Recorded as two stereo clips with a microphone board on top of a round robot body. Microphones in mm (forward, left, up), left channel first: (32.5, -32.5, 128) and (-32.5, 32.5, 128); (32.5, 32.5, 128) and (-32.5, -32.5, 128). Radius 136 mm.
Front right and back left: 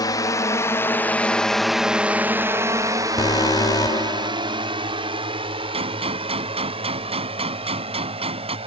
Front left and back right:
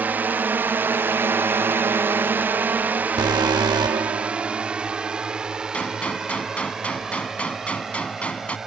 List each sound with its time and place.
0.0 s a drone: 70° right; by 8.7 s 140° left
3.2 s an alarm: 95° right
5.7 s a gunshot: 120° left